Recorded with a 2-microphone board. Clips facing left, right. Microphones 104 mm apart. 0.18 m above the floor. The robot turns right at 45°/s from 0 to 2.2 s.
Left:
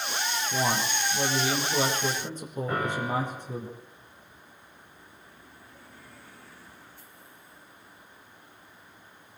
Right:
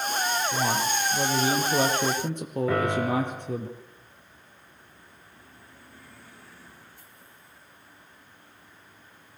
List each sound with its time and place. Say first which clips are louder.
0.5 s a man speaking: right 2 dB; 165° left, 5.5 m; by 3.7 s 115° right, 5.5 m
2.7 s a piano: right 4 dB; 85° right, 7 m